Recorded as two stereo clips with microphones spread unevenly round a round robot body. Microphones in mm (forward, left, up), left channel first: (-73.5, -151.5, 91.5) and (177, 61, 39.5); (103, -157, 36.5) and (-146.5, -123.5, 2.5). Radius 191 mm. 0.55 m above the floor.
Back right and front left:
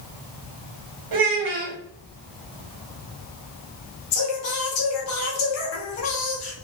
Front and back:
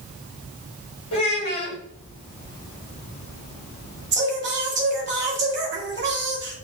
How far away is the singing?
About 1.0 m.